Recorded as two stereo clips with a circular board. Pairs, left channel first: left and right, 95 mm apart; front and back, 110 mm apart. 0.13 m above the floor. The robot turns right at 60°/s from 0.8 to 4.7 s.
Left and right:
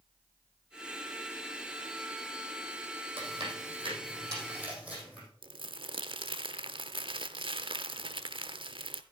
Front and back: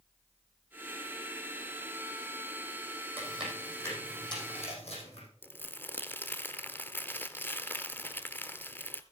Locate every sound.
3.2 s chewing: 110° right, 5 m; by 5.3 s 15° right, 5 m
5.4 s crumpling: 70° right, 0.5 m